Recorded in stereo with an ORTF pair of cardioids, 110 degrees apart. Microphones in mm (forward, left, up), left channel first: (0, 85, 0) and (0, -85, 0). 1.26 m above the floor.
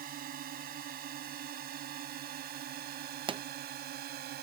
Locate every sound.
0.0 s a drone: 60° right; by 4.4 s 70° right
3.3 s a pop: 30° right